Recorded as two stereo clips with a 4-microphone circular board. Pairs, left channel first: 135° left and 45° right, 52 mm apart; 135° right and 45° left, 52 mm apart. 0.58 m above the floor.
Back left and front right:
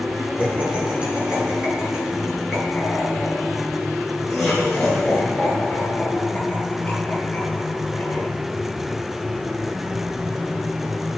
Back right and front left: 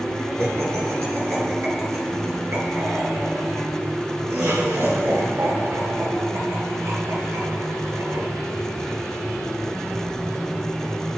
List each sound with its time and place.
0.4 s laughter: 15° left, 5.5 m; by 8.3 s 70° left, 11.5 m